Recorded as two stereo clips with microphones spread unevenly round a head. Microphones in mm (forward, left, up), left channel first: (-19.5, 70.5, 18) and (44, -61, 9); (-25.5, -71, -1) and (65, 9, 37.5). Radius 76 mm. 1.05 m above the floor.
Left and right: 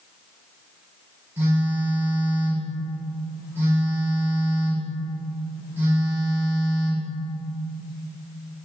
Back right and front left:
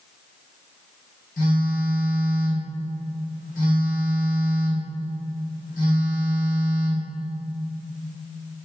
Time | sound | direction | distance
1.4 | a phone buzzing | 140° right | 3 m